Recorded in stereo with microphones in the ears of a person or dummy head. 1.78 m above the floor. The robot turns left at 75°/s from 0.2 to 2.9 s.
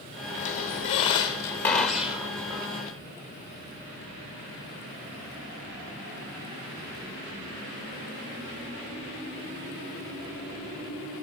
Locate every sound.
0.4 s a squeak: 25° left (ahead or behind), 0.9 m; by 2.8 s 25° right (ahead or behind), 0.9 m